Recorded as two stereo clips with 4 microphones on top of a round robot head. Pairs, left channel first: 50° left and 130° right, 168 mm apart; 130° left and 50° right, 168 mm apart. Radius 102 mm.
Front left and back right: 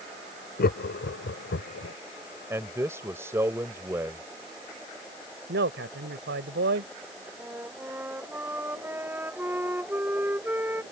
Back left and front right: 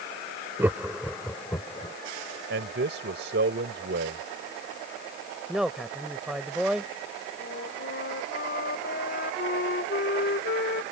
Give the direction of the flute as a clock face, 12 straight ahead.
7 o'clock.